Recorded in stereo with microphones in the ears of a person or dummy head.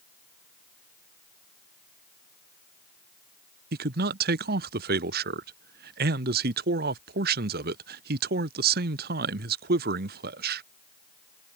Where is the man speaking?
45° right (ahead or behind).